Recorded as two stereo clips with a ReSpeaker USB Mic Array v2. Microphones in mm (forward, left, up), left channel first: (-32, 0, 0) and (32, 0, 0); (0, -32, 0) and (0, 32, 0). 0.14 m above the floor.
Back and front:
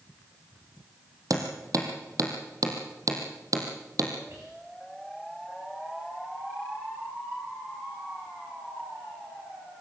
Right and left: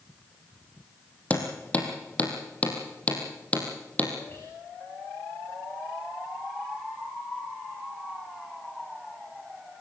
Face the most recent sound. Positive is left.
turn(degrees=-35)